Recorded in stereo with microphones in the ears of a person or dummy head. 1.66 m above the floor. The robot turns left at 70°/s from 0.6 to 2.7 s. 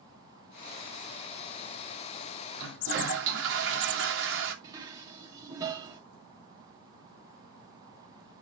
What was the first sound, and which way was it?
A toilet flushing, 70° right (ahead or behind).